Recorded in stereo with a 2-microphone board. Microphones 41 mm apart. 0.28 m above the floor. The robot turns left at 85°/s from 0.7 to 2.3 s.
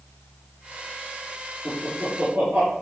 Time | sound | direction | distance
1.6 | laughter | 20° right (ahead or behind) | 5 m